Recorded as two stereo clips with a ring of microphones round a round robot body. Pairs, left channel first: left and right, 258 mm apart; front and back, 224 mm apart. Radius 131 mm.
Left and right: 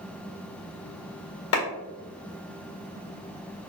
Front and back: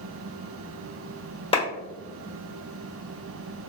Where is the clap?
60° left, 1.7 m.